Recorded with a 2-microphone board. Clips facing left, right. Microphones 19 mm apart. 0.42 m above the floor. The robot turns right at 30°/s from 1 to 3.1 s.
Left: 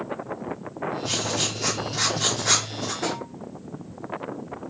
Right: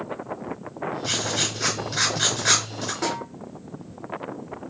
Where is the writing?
95° right, 5 m; by 2.9 s 40° right, 5 m.